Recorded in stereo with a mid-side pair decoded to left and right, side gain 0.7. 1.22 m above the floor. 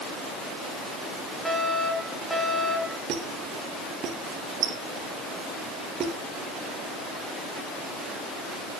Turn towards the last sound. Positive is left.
turn(degrees=-45)